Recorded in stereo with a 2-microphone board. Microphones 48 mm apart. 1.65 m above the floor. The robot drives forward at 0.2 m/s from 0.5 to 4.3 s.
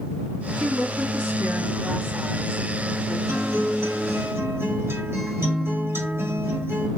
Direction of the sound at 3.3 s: 70° right (ahead or behind).